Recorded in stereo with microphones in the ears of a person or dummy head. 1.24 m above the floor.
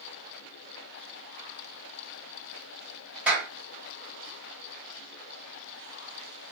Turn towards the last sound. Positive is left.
turn(degrees=-10)  # may be behind; listen again after turning